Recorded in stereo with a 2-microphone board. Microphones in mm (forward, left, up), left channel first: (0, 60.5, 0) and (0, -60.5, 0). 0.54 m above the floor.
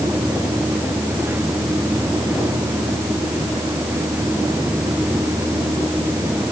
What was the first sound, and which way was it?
Only background noise.